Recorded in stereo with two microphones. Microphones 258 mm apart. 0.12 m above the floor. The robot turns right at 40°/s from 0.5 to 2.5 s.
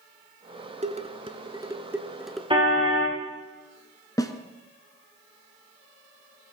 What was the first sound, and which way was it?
Dishes clattering, 25° right (ahead or behind).